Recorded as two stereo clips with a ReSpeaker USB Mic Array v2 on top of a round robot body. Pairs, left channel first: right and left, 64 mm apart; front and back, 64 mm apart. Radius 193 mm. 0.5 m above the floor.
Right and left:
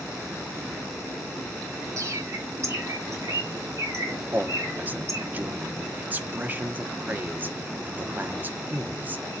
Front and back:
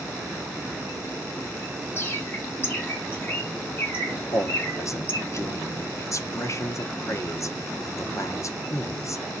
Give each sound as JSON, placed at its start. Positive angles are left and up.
{"t": 2.0, "sound": "a bird", "azimuth_deg": 50, "distance_m": 2.0}
{"t": 4.3, "sound": "a man speaking", "azimuth_deg": 30, "distance_m": 1.2}